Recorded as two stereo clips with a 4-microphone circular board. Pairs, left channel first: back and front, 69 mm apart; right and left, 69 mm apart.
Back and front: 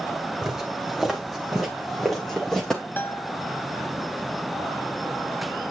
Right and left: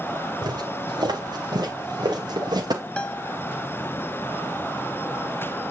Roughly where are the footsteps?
Left.